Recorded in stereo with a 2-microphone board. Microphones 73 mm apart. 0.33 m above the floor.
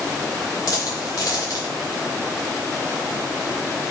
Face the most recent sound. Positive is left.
turn(degrees=50)  # may be behind; listen again after turning